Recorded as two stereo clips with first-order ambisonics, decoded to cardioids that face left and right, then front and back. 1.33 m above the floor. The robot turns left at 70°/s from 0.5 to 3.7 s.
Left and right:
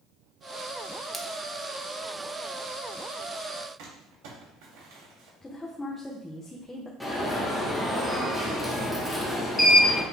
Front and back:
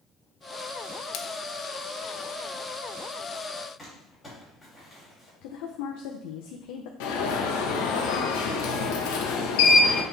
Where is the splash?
Straight ahead, 0.6 m; by 1.3 s 10° right, 0.6 m.